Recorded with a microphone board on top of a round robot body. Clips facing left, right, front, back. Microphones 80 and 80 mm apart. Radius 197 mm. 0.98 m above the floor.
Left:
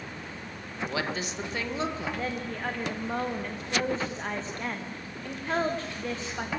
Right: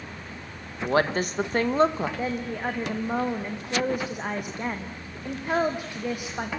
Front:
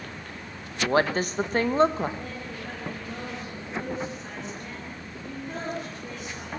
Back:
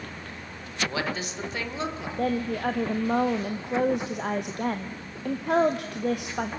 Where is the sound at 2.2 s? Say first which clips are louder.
Right 3 dB, back 10 dB; 165° right, 1.1 m.